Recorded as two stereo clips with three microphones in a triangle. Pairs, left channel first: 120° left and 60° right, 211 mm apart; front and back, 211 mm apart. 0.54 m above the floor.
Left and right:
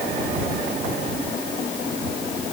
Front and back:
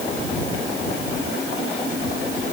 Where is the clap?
No clap in this recording.